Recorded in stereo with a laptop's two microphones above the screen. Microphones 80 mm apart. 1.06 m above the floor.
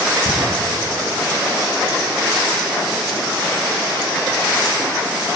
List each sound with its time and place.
0.2 s ticking: 10° left (ahead or behind), 1.0 m